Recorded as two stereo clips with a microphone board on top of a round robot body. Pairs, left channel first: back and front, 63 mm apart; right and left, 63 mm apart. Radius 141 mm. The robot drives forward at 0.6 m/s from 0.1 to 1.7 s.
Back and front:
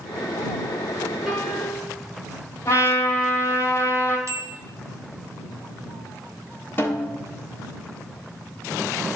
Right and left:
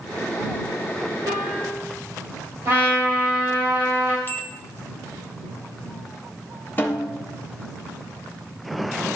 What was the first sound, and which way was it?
A piano, 80° left.